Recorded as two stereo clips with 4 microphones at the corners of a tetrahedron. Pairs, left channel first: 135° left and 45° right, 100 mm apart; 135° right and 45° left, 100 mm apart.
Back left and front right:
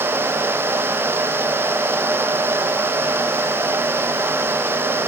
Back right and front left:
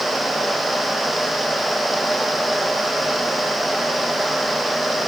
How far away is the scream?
No scream in this recording.